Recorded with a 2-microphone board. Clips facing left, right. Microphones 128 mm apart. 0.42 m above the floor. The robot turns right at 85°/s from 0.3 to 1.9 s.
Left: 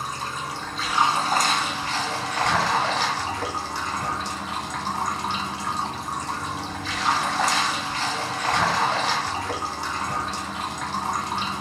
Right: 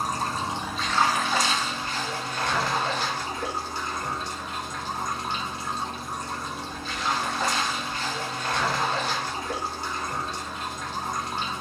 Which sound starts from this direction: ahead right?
Running water, at 0.0 s.